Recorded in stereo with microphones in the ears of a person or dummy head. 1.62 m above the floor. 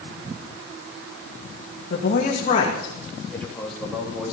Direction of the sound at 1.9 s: 65° left (ahead or behind).